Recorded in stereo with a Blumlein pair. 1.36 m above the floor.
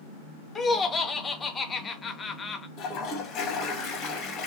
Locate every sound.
0.6 s laughter: 15° left, 0.5 m
2.8 s a toilet flushing: 30° left, 0.6 m